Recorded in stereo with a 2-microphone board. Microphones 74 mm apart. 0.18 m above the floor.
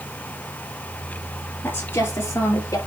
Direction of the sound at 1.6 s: 30° left (ahead or behind).